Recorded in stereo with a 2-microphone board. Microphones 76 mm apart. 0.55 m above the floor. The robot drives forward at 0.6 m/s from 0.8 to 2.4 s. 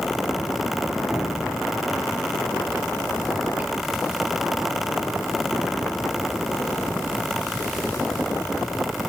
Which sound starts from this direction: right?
Dripping, at 1.1 s.